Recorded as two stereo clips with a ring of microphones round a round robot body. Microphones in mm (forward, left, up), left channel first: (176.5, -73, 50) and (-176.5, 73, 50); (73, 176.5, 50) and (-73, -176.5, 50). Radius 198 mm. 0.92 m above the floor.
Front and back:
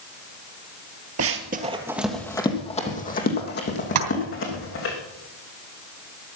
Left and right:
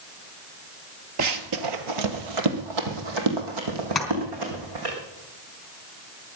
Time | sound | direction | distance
1.2 | running footsteps | 155° right | 1.5 m
4.0 | tapping | 160° left | 3.5 m